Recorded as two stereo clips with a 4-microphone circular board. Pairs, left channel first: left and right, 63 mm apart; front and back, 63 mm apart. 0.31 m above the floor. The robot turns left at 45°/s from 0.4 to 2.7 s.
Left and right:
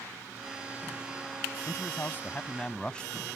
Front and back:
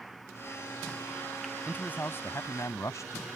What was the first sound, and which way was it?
A man speaking, 65° left.